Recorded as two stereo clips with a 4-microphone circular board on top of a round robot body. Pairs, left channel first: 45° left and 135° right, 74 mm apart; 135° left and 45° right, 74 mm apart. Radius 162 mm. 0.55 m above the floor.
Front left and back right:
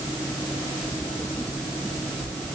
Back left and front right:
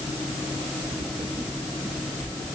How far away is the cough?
No cough in this recording.